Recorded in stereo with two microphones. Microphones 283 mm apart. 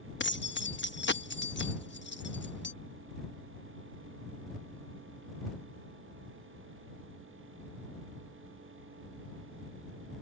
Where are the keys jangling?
40° left (ahead or behind).